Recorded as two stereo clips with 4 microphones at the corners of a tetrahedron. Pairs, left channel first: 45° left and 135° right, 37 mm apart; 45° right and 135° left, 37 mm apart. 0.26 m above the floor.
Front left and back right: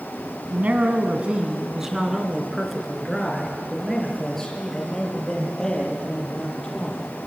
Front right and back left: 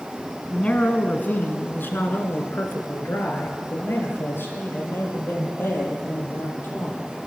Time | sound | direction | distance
0.5 | a man speaking | 100° right | 2 m